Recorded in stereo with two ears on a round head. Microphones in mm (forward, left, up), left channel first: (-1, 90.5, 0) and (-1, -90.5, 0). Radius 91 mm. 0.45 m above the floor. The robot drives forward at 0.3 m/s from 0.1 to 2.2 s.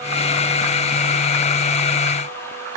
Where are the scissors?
No scissors in this recording.